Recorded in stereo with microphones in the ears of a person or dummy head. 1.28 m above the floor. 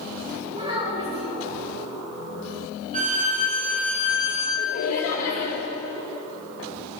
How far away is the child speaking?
About 3 m.